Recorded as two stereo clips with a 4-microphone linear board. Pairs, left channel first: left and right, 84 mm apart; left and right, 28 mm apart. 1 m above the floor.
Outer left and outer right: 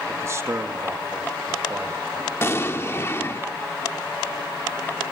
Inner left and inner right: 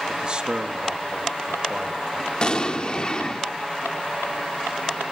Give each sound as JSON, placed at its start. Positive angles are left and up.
{"t": 0.1, "sound": "a man speaking", "side_deg": -35, "distance_m": 1.9}
{"t": 2.4, "sound": "an explosion", "side_deg": 30, "distance_m": 1.2}